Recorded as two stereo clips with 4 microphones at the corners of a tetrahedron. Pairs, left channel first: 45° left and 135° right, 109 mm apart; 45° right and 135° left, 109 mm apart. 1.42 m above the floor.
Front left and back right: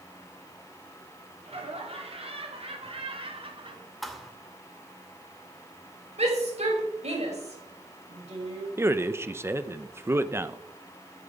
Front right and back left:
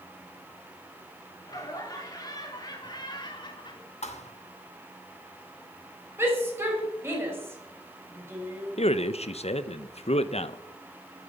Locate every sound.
1.4 s laughter: 105° right, 5 m; by 3.9 s 90° right, 2.5 m
4.0 s a thud: 45° right, 2 m
6.2 s a shout: 155° right, 6 m
8.8 s a man speaking: 70° right, 0.9 m